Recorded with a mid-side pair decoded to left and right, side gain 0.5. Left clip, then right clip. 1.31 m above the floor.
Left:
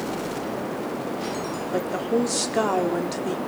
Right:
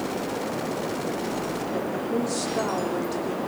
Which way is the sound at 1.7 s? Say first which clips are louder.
Left 6 dB; 40° left.